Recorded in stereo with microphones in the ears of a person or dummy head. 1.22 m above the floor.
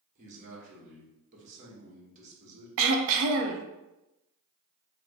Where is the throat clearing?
70° right (ahead or behind), 0.5 m.